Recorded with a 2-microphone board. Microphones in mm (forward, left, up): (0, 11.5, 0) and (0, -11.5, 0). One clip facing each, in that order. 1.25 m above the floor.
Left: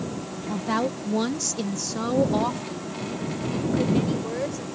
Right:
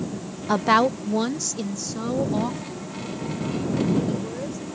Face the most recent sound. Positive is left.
turn(degrees=30)  # may be behind; listen again after turning